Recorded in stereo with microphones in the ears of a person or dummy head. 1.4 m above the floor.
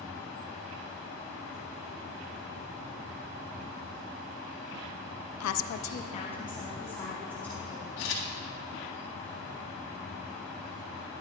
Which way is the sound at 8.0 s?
70° left (ahead or behind).